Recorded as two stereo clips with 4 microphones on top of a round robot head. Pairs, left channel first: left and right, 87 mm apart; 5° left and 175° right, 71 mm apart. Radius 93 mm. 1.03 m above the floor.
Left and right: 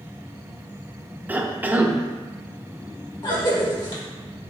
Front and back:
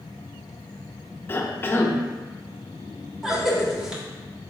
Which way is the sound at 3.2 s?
100° left.